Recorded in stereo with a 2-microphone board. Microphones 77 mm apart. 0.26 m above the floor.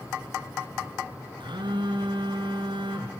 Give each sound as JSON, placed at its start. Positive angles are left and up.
{"t": 1.4, "sound": "a phone buzzing", "side_deg": -90, "distance_m": 2.5}